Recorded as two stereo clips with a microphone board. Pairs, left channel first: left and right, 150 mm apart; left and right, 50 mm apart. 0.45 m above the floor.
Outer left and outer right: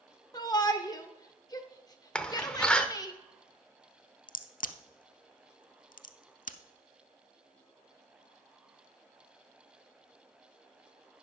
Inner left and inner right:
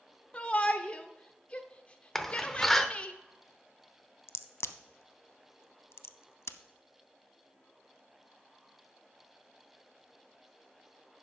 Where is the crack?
70° left (ahead or behind), 0.6 m.